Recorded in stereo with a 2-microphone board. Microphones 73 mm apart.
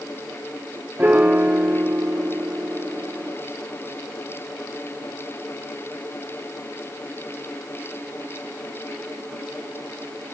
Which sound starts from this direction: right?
A piano, at 1.0 s.